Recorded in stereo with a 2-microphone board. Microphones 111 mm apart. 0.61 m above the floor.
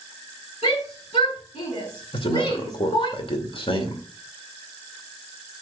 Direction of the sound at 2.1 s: 50° left (ahead or behind).